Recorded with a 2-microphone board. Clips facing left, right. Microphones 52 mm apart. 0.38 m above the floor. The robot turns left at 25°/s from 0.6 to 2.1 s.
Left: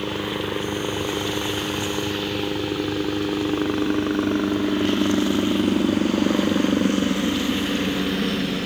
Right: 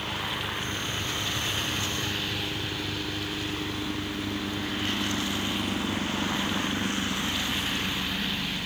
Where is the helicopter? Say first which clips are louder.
Left 6 dB; 65° left (ahead or behind); by 8.7 s 70° left (ahead or behind).